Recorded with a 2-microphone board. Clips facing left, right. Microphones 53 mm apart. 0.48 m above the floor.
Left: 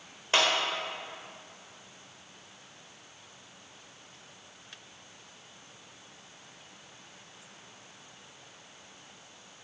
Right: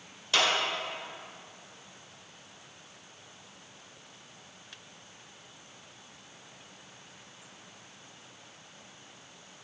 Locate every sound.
0.3 s a clap: 35° left (ahead or behind), 1.5 m